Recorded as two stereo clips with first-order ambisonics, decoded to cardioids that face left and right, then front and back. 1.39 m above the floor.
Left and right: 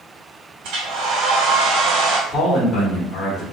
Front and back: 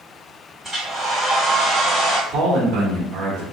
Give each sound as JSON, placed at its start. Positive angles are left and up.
{"t": 0.6, "sound": "a hair dryer", "azimuth_deg": -100, "distance_m": 1.5}
{"t": 2.3, "sound": "a man speaking", "azimuth_deg": 155, "distance_m": 1.2}